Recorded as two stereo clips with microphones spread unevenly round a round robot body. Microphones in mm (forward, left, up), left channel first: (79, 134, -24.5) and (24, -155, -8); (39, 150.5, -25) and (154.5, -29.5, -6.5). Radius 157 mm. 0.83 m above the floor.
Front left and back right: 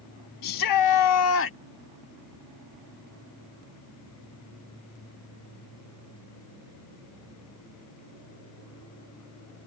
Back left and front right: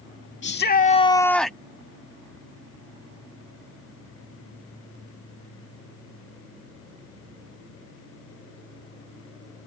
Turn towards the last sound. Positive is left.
turn(degrees=30)